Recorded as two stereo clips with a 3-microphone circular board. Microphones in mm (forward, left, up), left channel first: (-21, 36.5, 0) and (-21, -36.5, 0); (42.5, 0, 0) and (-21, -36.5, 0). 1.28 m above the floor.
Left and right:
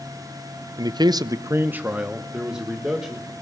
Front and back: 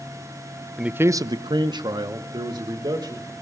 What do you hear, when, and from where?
0.8 s a man speaking: 70° right, 0.6 m; by 3.3 s 175° right, 2.5 m